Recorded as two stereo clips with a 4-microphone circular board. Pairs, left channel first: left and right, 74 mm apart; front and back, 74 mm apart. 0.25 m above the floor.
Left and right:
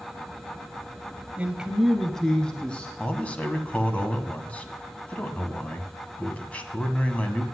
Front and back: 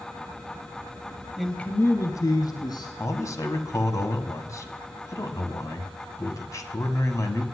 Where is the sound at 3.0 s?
25° left, 1.8 m.